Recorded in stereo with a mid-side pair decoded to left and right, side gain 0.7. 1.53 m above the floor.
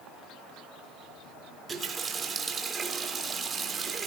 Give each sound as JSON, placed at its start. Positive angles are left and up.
{"t": 1.7, "sound": "a running tap", "azimuth_deg": -25, "distance_m": 3.5}